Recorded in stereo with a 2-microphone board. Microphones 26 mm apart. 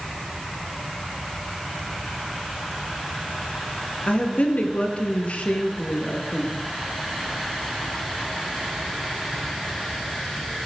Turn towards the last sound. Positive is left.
turn(degrees=55)  # may be behind; listen again after turning